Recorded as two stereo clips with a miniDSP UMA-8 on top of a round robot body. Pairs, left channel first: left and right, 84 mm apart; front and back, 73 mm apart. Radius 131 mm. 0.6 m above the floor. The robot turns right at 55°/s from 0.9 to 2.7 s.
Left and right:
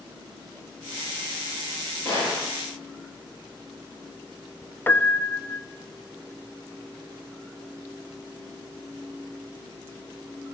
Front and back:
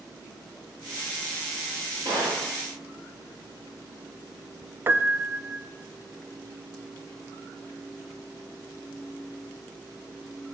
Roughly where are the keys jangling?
I don't hear keys jangling.